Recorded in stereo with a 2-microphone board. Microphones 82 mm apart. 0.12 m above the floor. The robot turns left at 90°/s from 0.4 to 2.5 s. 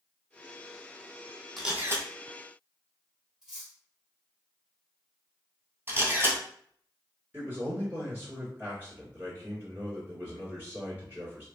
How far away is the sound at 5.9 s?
About 1.3 m.